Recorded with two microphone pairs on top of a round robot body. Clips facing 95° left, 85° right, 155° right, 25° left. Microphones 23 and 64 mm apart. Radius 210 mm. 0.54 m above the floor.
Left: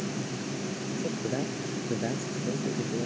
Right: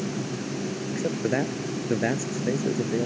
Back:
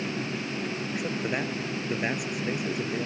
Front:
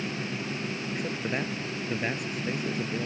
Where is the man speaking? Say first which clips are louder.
Right 6 dB, back 2 dB; 75° right.